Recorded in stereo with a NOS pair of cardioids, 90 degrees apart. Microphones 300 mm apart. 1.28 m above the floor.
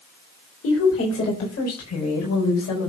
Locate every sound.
0.6 s a woman speaking: 50° left, 4 m; by 2.9 s 65° left, 5 m